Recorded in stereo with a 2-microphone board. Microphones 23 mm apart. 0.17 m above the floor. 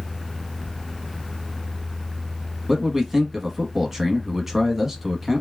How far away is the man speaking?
About 1.1 m.